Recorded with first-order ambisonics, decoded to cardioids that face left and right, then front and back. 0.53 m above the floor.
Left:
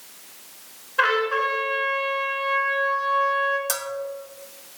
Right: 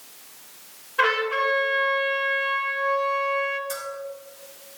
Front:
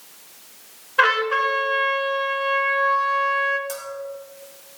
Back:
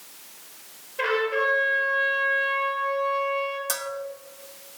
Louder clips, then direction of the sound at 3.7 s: Left 3 dB, back 2 dB; 120° left.